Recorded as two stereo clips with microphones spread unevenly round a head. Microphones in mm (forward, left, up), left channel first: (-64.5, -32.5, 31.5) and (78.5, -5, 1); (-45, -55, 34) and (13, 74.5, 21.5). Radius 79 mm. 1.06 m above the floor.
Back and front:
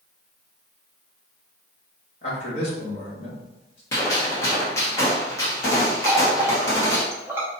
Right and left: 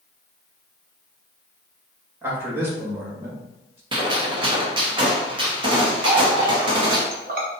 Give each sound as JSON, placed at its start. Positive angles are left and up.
{"t": 2.2, "sound": "a man speaking", "azimuth_deg": 135, "distance_m": 1.9}
{"t": 3.9, "sound": "a gunshot", "azimuth_deg": 115, "distance_m": 1.1}
{"t": 6.0, "sound": "a running tap", "azimuth_deg": 90, "distance_m": 0.8}